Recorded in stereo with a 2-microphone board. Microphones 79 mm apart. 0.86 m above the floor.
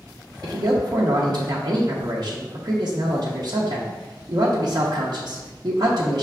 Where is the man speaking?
55° right (ahead or behind), 0.6 m.